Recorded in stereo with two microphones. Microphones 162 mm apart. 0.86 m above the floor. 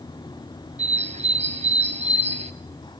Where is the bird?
40° right (ahead or behind), 1.3 m.